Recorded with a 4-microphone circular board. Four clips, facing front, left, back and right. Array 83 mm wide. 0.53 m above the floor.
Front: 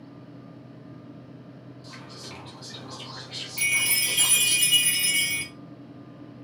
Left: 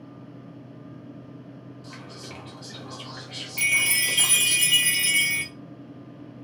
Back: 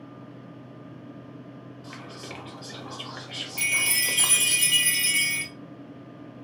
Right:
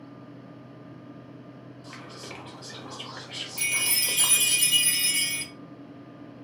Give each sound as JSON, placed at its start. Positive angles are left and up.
{"t": 1.8, "sound": "whispering", "azimuth_deg": -165, "distance_m": 1.3}
{"t": 3.6, "sound": "a chime", "azimuth_deg": 85, "distance_m": 0.8}